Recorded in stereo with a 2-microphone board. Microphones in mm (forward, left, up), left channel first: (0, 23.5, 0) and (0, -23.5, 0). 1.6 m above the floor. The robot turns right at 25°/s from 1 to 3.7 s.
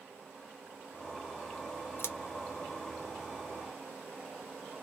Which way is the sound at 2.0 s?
60° left (ahead or behind).